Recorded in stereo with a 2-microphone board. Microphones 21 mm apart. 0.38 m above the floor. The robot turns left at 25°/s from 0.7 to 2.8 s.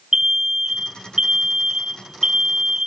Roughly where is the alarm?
Ahead right.